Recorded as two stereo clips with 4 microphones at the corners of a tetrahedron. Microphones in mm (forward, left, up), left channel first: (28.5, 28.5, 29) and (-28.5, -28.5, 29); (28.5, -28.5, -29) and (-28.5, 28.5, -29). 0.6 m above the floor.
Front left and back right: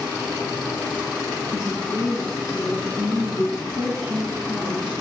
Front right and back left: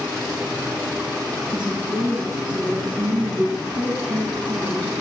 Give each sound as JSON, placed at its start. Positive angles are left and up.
{"t": 1.5, "sound": "a woman speaking", "azimuth_deg": 145, "distance_m": 6.5}